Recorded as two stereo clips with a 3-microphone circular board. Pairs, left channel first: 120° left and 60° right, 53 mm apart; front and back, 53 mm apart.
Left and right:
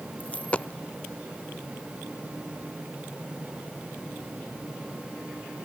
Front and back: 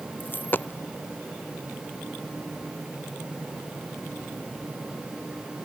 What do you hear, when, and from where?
0.2 s a dropped coin: 55° left